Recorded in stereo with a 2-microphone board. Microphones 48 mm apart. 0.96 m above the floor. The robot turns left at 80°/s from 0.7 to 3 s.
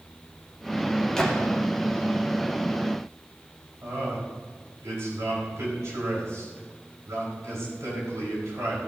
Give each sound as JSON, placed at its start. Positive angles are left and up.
{"t": 1.2, "sound": "a gunshot", "side_deg": 10, "distance_m": 2.0}
{"t": 3.8, "sound": "a man speaking", "side_deg": -80, "distance_m": 5.0}